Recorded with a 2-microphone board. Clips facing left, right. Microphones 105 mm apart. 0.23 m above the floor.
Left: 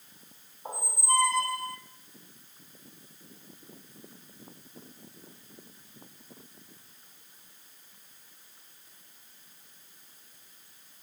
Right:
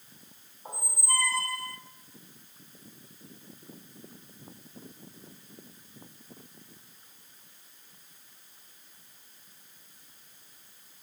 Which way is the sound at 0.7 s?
20° left (ahead or behind).